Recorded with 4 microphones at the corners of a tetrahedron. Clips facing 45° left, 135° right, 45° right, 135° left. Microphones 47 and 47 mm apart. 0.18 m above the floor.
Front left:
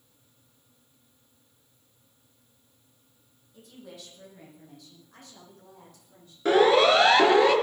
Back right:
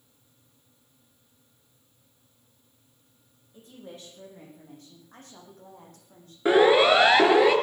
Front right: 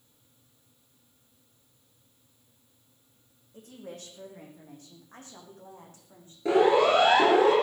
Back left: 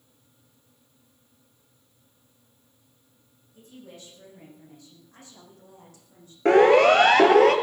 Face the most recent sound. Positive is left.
turn(degrees=145)